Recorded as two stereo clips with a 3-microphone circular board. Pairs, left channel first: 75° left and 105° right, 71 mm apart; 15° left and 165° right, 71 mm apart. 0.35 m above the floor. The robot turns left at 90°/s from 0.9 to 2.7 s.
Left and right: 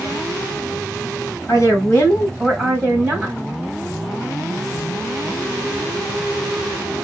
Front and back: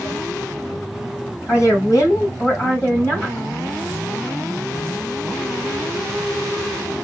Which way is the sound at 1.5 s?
65° left.